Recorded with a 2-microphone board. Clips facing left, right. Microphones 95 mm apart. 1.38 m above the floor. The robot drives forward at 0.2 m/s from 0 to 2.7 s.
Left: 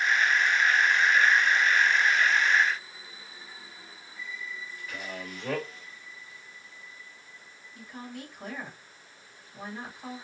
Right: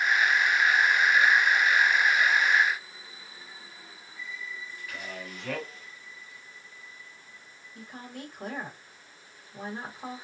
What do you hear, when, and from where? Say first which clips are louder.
4.9 s a man speaking: left 2 dB; 35° left (ahead or behind), 1.2 m
7.8 s a woman speaking: left 1 dB; 35° right (ahead or behind), 1.9 m